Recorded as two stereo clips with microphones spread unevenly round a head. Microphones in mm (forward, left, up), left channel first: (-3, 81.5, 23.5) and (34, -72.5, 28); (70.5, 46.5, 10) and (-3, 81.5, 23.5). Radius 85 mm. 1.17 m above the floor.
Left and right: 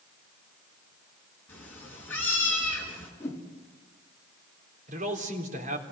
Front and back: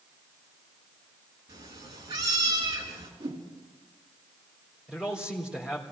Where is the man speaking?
120° right, 3.5 m.